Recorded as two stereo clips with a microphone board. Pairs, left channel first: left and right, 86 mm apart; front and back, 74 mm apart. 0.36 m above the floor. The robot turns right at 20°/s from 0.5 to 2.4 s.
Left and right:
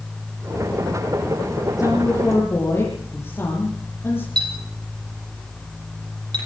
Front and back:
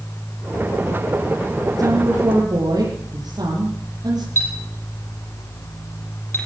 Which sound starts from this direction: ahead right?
A clink, at 4.4 s.